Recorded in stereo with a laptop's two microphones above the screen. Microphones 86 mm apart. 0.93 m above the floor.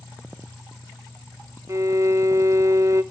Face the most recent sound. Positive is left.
turn(degrees=-40)  # may be behind; listen again after turning